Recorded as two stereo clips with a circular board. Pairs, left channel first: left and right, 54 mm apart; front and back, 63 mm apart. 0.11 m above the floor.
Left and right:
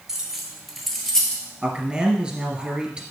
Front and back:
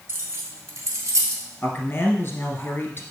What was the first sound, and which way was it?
Keys jangling, 170° right.